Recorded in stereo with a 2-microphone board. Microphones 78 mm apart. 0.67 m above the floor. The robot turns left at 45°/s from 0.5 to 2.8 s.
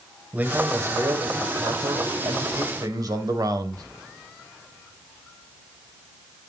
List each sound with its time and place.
0.3 s a man speaking: 25° right, 2.5 m; by 3.8 s 125° right, 2.5 m